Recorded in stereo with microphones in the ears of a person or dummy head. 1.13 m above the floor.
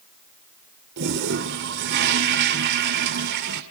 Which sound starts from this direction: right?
A toilet flushing, at 1.0 s.